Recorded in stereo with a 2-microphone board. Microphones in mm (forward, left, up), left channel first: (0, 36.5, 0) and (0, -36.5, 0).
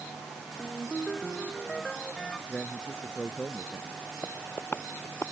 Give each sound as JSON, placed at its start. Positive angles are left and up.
{"t": 0.6, "sound": "a ringtone", "side_deg": 5}
{"t": 2.5, "sound": "a man speaking", "side_deg": 15}
{"t": 4.2, "sound": "tapping", "side_deg": 30}